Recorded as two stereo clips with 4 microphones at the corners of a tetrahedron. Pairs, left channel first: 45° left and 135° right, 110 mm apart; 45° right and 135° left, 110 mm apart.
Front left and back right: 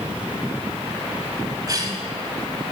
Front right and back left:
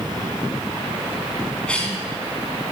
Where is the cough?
120° right, 1.5 m.